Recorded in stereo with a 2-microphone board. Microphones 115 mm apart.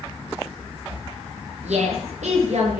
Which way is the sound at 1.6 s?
75° right (ahead or behind).